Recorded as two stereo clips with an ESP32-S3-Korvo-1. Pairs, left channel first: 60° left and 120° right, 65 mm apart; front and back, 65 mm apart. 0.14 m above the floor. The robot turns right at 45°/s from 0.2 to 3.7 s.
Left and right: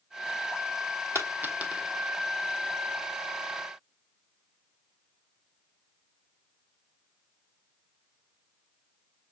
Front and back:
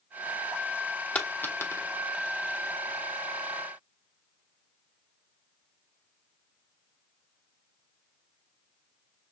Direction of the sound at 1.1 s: 70° right.